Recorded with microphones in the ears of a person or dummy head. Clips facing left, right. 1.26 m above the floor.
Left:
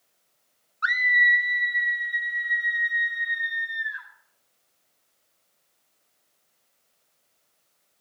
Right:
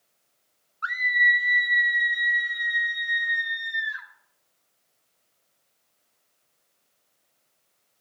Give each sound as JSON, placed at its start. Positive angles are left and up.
{"t": 0.8, "sound": "a scream", "side_deg": 25, "distance_m": 0.7}